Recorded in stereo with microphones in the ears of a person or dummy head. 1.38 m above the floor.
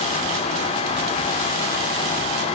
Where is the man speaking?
No man speaking in this recording.